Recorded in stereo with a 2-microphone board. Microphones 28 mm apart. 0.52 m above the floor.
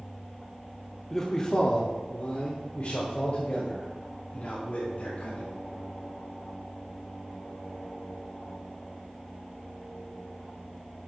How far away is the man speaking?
About 1.0 m.